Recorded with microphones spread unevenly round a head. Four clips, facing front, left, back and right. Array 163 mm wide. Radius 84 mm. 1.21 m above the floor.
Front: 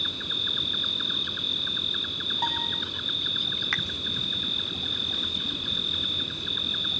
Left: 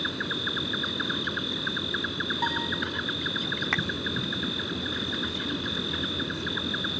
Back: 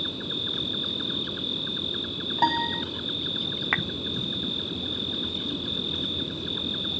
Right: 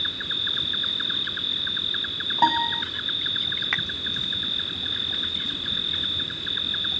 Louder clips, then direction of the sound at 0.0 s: Left 4 dB, back 4 dB; 135° left.